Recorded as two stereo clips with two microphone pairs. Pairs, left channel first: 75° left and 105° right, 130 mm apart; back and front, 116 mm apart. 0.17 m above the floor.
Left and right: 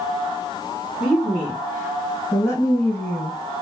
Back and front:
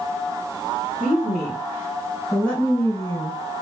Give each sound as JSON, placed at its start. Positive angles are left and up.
{"t": 1.0, "sound": "a woman speaking", "azimuth_deg": 80, "distance_m": 1.8}